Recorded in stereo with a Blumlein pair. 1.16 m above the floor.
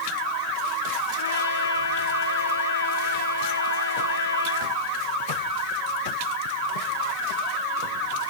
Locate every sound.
1.2 s a trumpet: 70° left, 1.7 m